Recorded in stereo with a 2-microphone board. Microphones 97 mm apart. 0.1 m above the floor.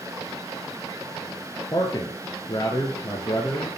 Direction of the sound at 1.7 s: 35° left (ahead or behind).